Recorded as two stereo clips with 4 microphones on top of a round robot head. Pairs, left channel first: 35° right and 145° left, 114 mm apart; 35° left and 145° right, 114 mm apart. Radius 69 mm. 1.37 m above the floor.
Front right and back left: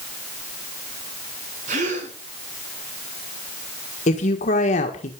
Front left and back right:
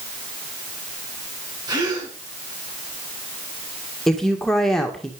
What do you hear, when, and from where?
1.7 s a gasp: 155° left, 9.5 m
4.1 s a woman speaking: 50° right, 1.8 m